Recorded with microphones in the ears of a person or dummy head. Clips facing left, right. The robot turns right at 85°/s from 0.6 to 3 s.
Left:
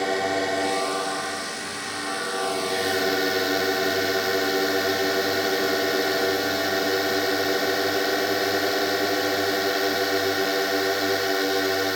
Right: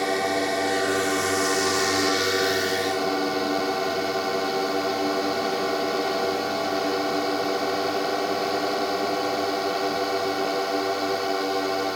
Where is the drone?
175° left; by 12.0 s 20° left.